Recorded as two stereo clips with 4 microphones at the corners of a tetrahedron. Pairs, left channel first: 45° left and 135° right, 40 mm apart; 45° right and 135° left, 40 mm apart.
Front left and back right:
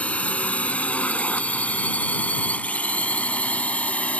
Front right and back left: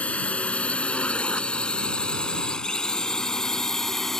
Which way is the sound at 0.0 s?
5° left.